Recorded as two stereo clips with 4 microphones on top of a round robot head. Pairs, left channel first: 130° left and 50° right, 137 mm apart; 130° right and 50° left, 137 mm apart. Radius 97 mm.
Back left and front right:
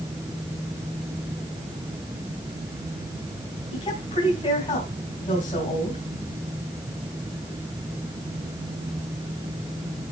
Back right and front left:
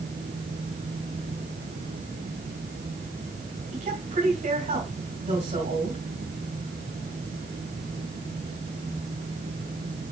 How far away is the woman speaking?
About 3 m.